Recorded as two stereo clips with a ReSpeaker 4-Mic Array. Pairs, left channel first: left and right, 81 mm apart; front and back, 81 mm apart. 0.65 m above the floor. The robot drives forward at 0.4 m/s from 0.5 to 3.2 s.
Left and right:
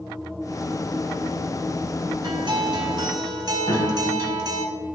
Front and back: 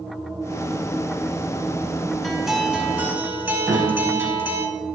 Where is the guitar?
85° right, 0.8 m; by 4.7 s 115° right, 0.8 m.